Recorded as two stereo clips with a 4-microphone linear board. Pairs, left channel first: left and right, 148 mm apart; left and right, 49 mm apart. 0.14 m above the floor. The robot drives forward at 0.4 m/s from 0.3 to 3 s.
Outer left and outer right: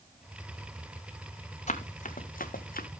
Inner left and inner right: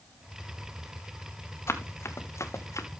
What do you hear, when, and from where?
1.7 s running footsteps: 55° left (ahead or behind), 1.9 m; by 2.9 s 85° left, 1.1 m